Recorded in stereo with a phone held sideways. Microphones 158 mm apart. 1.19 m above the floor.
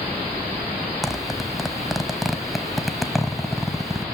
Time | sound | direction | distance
1.0 | a zipper | centre (ahead or behind) | 1.2 m